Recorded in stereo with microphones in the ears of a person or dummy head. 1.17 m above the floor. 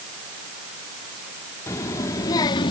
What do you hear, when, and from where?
1.7 s a child speaking: 15° left (ahead or behind); by 2.7 s 25° left (ahead or behind)